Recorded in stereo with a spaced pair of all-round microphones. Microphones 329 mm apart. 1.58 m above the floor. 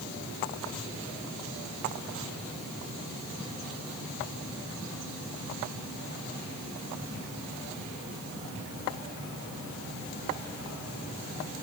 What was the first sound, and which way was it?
Only background noise.